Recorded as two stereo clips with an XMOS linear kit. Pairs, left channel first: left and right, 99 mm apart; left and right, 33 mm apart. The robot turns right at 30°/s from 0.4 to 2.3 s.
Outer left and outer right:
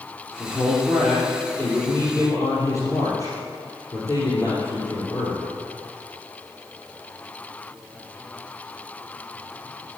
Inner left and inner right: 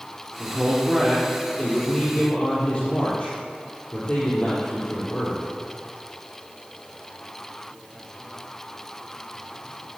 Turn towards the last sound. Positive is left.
turn(degrees=40)